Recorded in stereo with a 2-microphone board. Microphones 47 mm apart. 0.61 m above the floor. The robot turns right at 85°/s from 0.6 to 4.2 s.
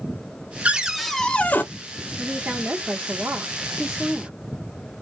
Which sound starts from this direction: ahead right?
A cupboard door, at 0.7 s.